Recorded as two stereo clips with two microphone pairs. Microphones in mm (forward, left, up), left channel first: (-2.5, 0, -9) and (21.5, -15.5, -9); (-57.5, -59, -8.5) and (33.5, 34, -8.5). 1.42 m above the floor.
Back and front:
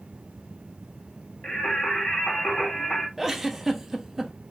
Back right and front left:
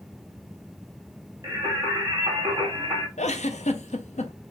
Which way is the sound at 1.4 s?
105° left.